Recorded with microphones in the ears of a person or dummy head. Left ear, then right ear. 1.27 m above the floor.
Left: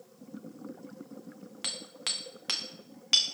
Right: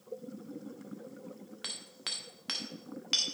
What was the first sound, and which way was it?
Hammering, 10° left (ahead or behind).